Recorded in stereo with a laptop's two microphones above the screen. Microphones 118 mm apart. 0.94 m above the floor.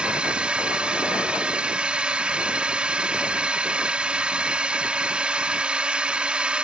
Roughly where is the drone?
Centre.